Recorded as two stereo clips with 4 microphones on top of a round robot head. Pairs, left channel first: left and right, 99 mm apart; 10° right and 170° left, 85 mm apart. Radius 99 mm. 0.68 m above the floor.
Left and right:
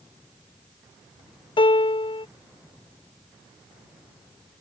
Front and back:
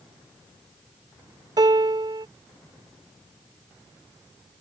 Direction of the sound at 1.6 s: 125° left.